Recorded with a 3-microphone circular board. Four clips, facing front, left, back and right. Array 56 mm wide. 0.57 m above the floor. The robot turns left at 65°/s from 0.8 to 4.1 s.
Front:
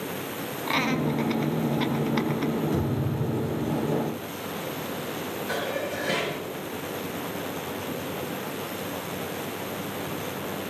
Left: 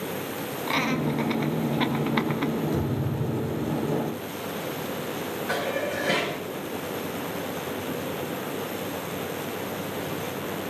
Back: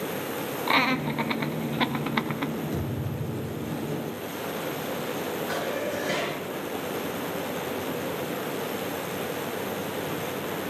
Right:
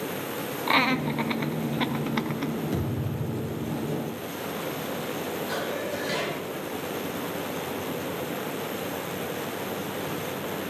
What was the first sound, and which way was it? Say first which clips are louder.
Laughter: right 2 dB, back 1 dB; 125° right.